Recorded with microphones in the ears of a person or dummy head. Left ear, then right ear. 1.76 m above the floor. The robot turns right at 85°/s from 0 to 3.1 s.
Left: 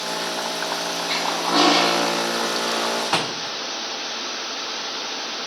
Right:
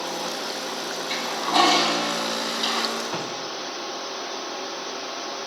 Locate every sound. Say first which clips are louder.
1.1 s a toilet flushing: left 2 dB; 170° left, 5 m; by 2.9 s 35° right, 5 m
3.0 s a door slam: left 6 dB; 45° left (ahead or behind), 0.9 m; by 3.6 s 50° left (ahead or behind), 0.9 m